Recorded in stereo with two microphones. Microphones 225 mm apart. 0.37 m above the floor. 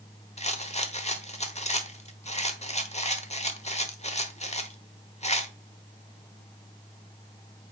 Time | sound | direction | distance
0.4 | a rattle | 30° left (ahead or behind) | 1.1 m